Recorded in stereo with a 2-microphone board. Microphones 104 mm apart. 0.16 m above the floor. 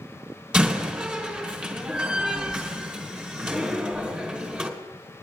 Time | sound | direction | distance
0.5 | a door slam | 5° right (ahead or behind) | 3 m